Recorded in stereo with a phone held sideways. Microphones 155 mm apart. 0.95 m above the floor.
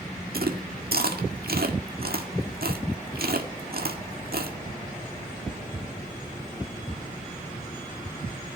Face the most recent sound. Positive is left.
turn(degrees=-80)